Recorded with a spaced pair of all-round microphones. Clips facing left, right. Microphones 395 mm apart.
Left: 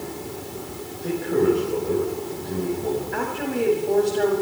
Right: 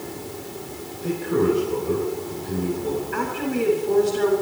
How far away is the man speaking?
About 6 m.